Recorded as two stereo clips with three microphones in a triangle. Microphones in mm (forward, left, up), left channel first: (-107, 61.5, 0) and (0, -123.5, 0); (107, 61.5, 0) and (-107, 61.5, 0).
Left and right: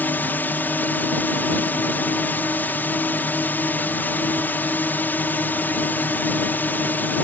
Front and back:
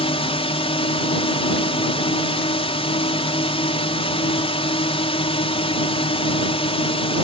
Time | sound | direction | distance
0.0 | a drone | 45° left | ?